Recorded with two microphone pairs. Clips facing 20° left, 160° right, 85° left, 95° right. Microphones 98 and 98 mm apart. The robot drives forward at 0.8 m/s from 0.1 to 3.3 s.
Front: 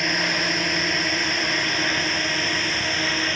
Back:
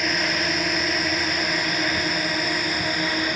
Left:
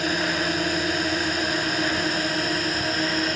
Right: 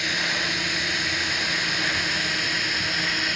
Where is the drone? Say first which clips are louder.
Even, left 5 dB; 115° left; by 3.4 s 125° left.